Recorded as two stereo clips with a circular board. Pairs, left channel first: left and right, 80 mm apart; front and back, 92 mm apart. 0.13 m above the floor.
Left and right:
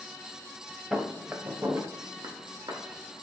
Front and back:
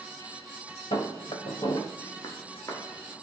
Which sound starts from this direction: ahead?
Footsteps, at 0.9 s.